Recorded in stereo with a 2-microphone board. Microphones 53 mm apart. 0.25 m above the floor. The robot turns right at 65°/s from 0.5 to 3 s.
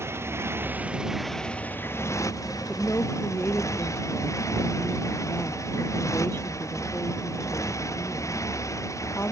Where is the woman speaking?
25° left (ahead or behind); by 9.3 s 45° left (ahead or behind).